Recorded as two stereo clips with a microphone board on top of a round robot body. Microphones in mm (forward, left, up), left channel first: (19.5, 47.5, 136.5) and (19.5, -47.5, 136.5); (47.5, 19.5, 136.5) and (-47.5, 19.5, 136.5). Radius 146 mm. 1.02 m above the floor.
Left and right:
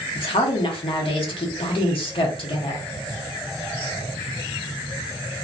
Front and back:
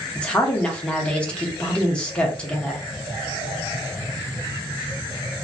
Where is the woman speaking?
80° left, 1.2 m.